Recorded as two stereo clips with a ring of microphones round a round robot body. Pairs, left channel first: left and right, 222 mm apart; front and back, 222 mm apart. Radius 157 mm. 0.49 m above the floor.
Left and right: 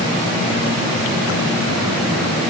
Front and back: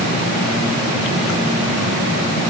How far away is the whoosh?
No whoosh in this recording.